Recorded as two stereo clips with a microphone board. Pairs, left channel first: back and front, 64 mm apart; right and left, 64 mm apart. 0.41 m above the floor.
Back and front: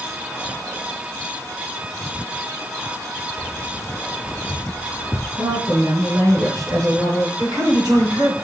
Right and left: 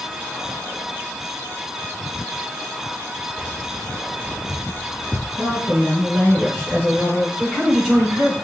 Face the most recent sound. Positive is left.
turn(degrees=5)